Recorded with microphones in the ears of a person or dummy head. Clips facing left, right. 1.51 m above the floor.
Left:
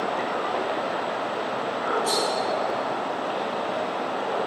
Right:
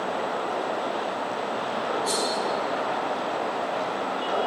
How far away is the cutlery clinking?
About 1.2 m.